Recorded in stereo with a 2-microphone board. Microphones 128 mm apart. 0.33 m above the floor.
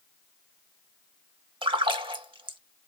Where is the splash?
40° right (ahead or behind), 0.6 m.